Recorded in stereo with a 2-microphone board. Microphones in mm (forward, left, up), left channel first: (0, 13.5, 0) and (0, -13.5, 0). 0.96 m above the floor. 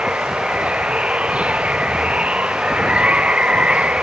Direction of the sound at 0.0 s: 45° right (ahead or behind).